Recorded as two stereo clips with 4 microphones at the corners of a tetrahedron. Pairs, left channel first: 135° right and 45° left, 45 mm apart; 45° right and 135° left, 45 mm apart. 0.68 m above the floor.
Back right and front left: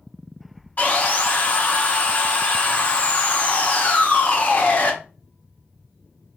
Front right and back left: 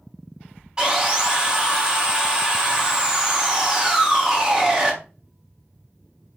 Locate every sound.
0.8 s sawing: 165° right, 1.0 m